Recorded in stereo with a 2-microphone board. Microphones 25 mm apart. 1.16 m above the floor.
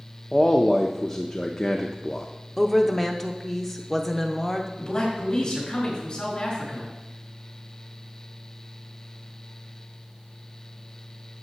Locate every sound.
0.3 s a man speaking: 15° left (ahead or behind), 0.6 m
2.6 s a woman speaking: centre (ahead or behind), 0.6 m
4.8 s a man speaking: 25° left (ahead or behind), 3.5 m